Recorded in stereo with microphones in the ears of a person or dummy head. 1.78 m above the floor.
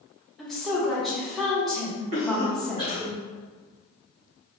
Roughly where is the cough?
Right.